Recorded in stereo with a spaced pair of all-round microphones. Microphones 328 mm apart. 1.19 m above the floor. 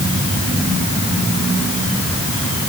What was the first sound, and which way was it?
Only background noise.